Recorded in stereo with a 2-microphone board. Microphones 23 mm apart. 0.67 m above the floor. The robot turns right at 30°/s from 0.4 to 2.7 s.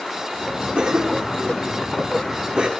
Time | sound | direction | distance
0.8 | a cough | 65° right (ahead or behind) | 1.4 m